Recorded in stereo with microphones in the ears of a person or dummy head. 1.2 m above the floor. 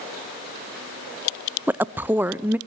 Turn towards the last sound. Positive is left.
turn(degrees=-5)  # may be behind; listen again after turning